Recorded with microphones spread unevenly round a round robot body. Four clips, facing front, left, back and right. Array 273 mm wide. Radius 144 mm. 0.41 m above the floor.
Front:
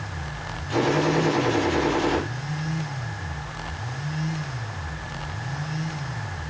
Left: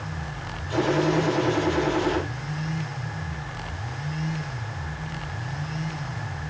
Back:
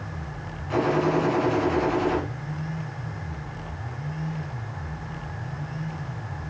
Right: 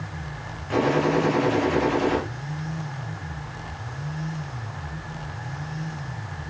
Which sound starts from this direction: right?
A gunshot, at 0.7 s.